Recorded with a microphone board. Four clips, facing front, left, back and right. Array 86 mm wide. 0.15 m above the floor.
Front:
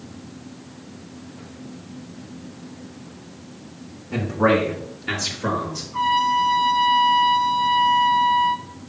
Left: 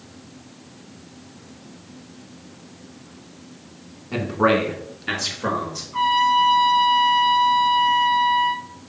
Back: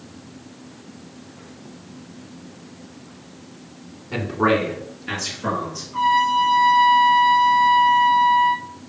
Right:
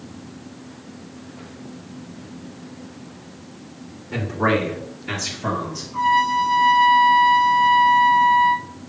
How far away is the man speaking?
About 1.6 m.